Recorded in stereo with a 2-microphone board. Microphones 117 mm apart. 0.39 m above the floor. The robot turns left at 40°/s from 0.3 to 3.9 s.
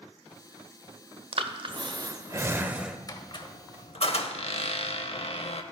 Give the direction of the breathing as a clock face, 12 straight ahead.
4 o'clock.